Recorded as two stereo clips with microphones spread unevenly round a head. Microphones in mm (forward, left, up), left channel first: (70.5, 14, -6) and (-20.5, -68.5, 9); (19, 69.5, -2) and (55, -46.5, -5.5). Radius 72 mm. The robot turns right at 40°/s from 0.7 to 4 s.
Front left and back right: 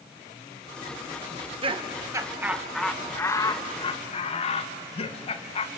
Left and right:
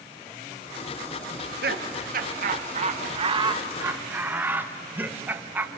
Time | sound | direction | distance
1.3 | laughter | 105° right | 1.6 m